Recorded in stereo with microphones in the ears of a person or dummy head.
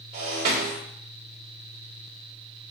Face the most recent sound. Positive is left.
turn(degrees=-45)  # may be behind; listen again after turning